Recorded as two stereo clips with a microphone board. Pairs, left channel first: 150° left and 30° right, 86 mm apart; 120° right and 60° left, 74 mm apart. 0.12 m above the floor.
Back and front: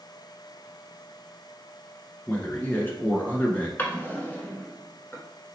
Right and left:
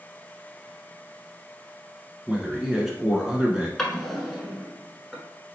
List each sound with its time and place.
2.3 s a man speaking: 130° left, 1.1 m
3.8 s a drawer: 155° left, 0.9 m